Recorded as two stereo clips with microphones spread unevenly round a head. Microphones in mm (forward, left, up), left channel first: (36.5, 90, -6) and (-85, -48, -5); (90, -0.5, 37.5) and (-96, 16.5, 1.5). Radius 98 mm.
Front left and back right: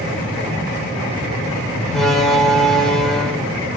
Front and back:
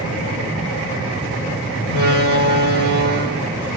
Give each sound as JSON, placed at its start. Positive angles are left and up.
{"t": 1.9, "sound": "a door slam", "azimuth_deg": 140, "distance_m": 4.0}